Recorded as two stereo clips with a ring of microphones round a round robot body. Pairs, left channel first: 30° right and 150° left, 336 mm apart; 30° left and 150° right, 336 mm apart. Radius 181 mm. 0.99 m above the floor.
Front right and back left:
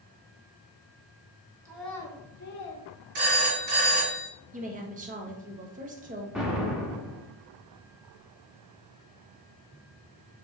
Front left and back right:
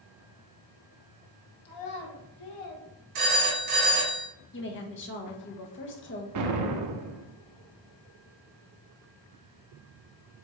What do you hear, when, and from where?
1.6 s a child speaking: 70° left, 1.1 m; by 2.9 s 20° left, 1.5 m
3.1 s a phone ringing: 165° left, 2 m
4.5 s a woman speaking: 85° left, 1.0 m
6.3 s an explosion: 120° right, 0.5 m